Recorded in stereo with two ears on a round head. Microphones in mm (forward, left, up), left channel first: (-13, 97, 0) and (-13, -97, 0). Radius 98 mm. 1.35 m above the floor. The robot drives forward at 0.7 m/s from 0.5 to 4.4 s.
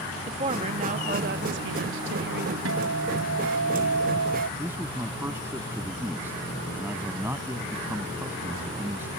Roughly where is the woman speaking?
Right.